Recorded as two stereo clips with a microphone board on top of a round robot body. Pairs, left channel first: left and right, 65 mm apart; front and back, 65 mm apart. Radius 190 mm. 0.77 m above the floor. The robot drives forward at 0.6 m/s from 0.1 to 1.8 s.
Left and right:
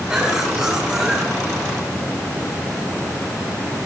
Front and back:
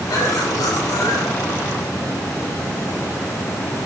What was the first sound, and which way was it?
A cough, 20° right.